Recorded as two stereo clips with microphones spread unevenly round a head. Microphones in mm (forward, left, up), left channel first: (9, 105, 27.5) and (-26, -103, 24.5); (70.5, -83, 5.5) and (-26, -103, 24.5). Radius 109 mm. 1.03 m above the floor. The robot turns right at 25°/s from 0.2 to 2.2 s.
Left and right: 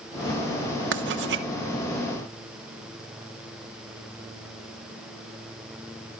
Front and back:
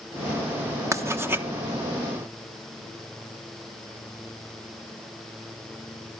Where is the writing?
105° right, 1.2 m; by 1.5 s 90° right, 1.2 m.